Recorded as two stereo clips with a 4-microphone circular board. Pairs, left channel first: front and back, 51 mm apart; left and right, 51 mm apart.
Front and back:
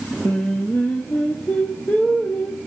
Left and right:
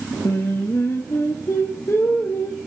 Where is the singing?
60° left, 2.5 m.